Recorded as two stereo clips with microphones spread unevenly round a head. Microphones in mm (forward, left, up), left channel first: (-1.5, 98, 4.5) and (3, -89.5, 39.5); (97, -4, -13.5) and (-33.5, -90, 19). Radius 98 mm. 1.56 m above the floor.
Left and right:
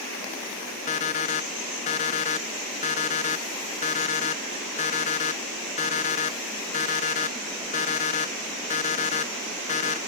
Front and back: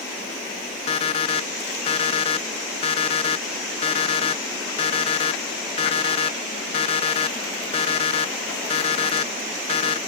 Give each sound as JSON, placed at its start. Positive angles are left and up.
{"t": 0.9, "sound": "an alarm clock", "azimuth_deg": 65, "distance_m": 0.9}